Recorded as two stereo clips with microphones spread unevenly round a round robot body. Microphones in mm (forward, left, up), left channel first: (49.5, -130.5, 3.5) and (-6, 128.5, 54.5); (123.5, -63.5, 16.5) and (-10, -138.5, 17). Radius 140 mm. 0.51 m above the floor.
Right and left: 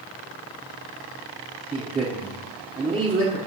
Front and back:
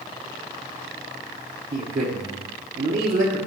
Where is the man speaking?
175° left, 1.5 m.